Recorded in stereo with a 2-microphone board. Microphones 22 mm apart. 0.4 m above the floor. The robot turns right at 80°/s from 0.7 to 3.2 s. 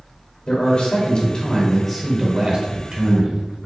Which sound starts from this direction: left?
A man speaking, at 0.5 s.